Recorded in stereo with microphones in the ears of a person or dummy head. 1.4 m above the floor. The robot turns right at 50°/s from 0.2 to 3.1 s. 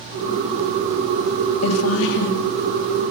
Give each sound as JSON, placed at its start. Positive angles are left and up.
{"t": 1.6, "sound": "a woman speaking", "azimuth_deg": 90, "distance_m": 3.5}